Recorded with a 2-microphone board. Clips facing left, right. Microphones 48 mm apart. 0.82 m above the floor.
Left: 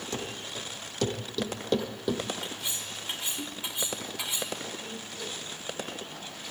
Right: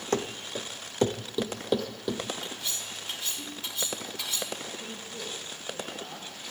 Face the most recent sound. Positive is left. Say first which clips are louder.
# even
turn(degrees=-45)  # may be behind; listen again after turning